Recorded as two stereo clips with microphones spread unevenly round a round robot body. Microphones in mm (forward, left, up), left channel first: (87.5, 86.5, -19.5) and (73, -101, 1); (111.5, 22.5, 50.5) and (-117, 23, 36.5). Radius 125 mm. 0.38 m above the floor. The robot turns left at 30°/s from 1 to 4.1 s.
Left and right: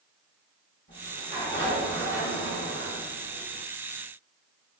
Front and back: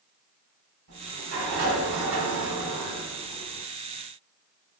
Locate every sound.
0.9 s a sliding door: 155° right, 1.2 m; by 3.6 s 125° left, 1.2 m